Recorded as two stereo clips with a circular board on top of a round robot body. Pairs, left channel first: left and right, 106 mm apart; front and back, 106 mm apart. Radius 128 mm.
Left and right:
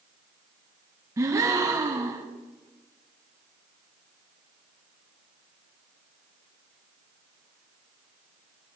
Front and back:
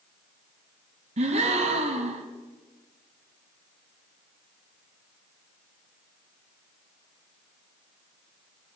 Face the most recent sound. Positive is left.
turn(degrees=-155)